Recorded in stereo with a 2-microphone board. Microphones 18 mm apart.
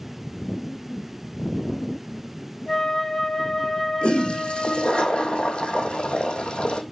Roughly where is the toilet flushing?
Left.